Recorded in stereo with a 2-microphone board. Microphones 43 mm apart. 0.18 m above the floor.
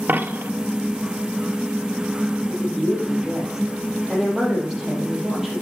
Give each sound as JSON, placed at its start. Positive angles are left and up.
{"t": 0.1, "sound": "a dropped coin", "side_deg": -50, "distance_m": 0.9}
{"t": 2.5, "sound": "a woman speaking", "side_deg": 0, "distance_m": 4.5}